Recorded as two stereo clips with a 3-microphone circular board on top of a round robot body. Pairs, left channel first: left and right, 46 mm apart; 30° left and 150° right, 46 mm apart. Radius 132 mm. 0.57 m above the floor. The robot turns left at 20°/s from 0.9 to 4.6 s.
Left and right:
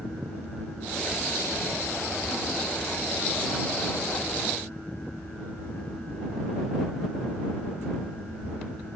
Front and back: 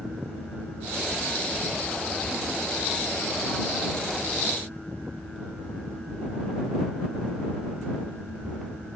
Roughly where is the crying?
No crying in this recording.